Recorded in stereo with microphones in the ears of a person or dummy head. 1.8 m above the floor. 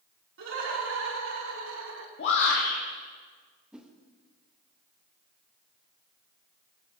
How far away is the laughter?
About 3 m.